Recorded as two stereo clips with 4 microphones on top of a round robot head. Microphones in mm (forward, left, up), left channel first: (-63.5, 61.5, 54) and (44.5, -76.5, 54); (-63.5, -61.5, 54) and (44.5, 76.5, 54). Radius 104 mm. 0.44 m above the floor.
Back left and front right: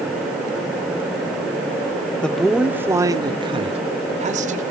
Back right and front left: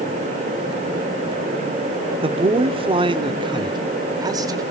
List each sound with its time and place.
2.2 s a man speaking: 50° left, 1.1 m; by 4.6 s 15° right, 1.9 m